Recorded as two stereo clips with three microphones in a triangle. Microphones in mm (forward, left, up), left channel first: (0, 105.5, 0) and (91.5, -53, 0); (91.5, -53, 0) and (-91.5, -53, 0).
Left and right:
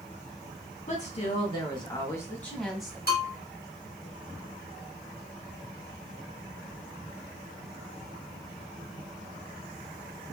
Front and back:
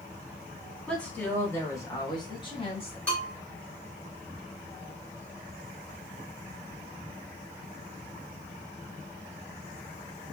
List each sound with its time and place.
0.9 s a woman speaking: 80° left, 2.0 m; by 3.0 s 25° left, 1.6 m
3.1 s a bell: 85° left, 1.9 m